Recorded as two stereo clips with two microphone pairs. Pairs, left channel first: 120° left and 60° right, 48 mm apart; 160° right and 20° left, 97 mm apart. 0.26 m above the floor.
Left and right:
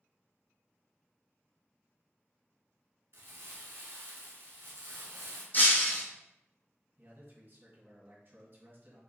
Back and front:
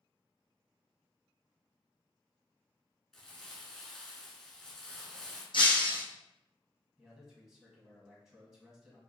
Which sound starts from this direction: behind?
Breaking glass, at 5.5 s.